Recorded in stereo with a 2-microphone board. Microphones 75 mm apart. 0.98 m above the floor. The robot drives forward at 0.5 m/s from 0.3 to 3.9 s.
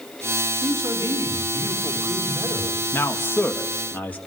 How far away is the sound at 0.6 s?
About 3 m.